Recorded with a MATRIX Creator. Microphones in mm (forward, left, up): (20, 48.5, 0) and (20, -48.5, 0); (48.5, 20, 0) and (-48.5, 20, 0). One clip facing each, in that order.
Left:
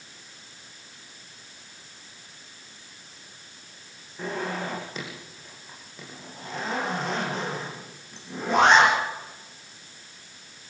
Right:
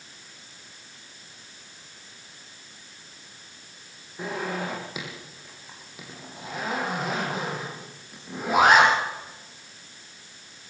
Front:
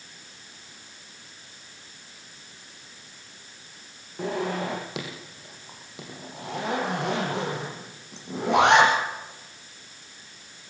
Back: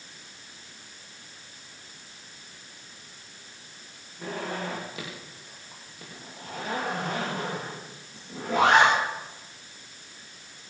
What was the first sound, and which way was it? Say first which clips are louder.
A zipper: even, front 5 dB; 10° right.